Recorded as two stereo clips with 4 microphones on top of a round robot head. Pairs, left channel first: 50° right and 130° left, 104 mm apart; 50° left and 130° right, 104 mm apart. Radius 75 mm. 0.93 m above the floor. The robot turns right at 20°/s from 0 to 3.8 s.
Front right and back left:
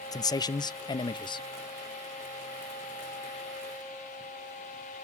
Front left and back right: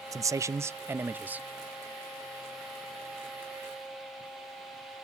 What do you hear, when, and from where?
0.1 s a man speaking: 85° right, 0.5 m; by 1.5 s 60° right, 0.5 m